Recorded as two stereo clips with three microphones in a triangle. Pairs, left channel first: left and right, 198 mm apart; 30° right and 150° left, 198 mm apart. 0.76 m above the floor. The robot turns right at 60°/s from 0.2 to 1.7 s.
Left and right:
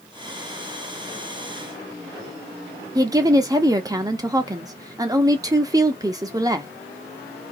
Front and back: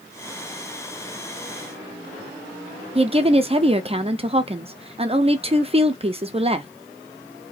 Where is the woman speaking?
155° right, 0.7 m.